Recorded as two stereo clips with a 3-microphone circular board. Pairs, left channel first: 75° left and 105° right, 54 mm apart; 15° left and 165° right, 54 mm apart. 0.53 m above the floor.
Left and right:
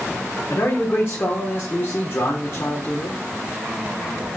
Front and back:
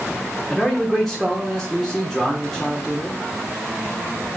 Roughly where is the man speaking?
Left.